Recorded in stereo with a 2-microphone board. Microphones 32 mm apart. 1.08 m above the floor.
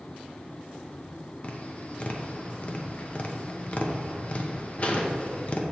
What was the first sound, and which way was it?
Tapping, 40° left (ahead or behind).